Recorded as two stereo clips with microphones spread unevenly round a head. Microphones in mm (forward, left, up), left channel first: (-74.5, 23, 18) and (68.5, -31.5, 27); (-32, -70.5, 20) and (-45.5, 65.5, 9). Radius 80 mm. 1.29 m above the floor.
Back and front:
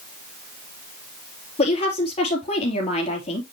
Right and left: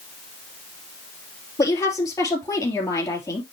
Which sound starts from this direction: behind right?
A woman speaking, at 1.6 s.